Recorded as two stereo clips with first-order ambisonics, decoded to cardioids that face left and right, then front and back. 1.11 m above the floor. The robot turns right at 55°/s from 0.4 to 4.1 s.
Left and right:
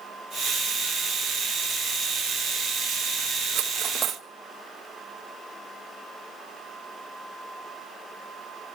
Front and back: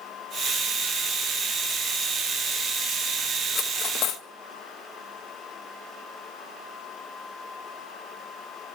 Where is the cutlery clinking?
55° right, 1.1 m; by 4.2 s 25° right, 1.1 m.